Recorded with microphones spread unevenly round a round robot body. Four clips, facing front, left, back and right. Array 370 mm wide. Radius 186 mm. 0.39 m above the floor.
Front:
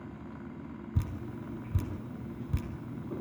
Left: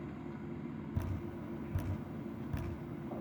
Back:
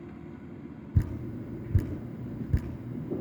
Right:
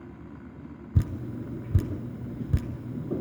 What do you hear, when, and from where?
0.9 s dripping: 120° right, 1.2 m